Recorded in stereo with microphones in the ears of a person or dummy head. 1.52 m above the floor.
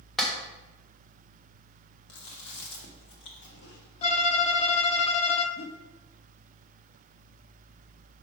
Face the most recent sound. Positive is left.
turn(degrees=70)  # may be behind; listen again after turning